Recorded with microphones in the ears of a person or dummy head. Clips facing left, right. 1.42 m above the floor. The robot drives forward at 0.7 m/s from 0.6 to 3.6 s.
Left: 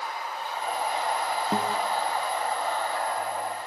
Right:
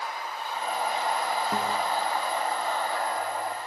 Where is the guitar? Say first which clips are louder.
Left 4 dB; 25° left (ahead or behind), 0.9 m; by 1.8 s 30° left (ahead or behind), 0.8 m.